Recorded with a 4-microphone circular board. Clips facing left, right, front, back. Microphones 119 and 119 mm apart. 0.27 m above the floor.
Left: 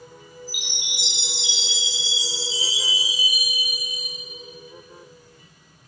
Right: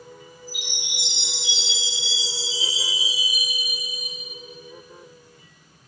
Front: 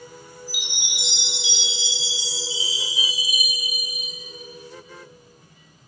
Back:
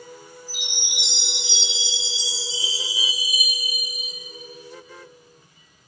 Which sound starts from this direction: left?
A chime, at 0.5 s.